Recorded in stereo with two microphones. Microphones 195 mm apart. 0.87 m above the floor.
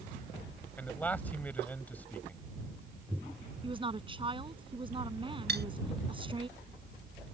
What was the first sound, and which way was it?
A man speaking, 10° left (ahead or behind).